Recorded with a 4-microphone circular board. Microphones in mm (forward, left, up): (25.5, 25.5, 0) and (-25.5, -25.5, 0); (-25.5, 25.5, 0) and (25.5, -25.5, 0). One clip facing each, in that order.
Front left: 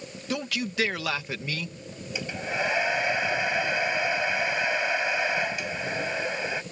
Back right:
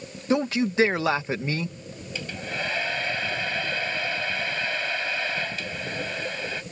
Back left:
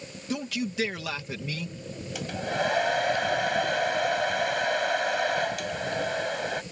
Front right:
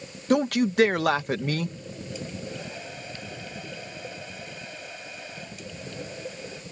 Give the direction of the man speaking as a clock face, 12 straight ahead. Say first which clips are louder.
Back right 8 dB, front right 9 dB; 3 o'clock.